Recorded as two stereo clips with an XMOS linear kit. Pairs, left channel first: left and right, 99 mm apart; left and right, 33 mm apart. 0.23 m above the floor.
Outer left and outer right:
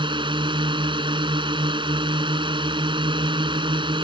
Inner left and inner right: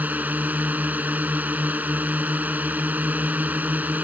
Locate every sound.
0.0 s a drone: 55° right (ahead or behind)